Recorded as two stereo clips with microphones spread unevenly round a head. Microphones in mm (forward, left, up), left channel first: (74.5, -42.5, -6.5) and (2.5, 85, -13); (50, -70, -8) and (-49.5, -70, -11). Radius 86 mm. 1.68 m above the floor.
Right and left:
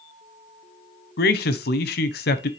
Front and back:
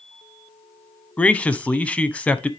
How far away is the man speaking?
About 0.9 m.